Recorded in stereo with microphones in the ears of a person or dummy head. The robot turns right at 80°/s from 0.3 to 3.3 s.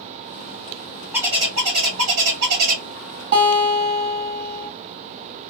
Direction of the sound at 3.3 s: 40° right (ahead or behind).